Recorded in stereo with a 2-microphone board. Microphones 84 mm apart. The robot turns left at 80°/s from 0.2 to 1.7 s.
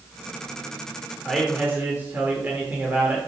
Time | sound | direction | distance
1.2 | a man speaking | straight ahead | 1.1 m